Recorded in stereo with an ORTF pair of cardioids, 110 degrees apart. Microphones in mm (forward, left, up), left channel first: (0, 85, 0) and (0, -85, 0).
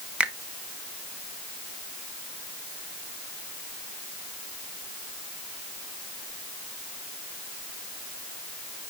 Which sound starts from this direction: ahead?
A finger snap, at 0.2 s.